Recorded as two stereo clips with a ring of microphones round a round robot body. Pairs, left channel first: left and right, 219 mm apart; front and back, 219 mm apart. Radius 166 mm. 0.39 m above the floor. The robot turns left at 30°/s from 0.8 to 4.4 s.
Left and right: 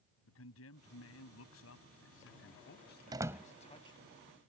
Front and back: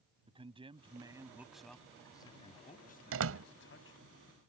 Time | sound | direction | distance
0.3 | a man speaking | 115° left | ?
3.1 | a door slam | 165° right | ?